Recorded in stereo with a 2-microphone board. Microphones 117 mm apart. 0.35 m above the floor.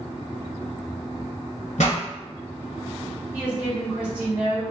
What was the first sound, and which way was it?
A pop, 90° left.